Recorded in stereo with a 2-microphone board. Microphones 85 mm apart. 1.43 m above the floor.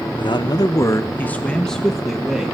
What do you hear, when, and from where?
0.2 s a man speaking: 65° left (ahead or behind), 0.8 m; by 2.5 s 5° right (ahead or behind), 1.6 m